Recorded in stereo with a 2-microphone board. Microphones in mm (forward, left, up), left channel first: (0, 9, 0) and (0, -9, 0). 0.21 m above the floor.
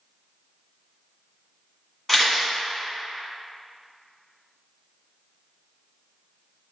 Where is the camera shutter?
Centre (ahead or behind), 1.7 m.